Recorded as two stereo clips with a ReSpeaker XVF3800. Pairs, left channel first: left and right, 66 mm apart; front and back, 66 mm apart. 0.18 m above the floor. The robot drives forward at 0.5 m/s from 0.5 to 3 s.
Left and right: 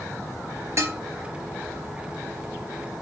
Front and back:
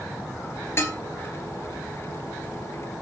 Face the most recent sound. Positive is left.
turn(degrees=-85)